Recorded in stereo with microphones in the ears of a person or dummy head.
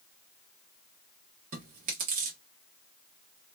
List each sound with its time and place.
1.5 s chewing: 40° right (ahead or behind), 1.3 m